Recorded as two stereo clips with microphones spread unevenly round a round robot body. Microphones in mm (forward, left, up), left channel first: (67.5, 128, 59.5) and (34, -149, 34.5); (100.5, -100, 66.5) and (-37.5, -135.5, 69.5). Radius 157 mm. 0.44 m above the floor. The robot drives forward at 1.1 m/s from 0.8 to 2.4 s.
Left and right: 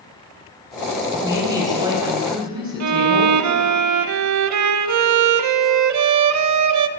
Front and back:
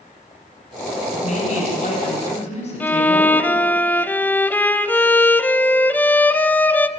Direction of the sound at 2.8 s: 65° right.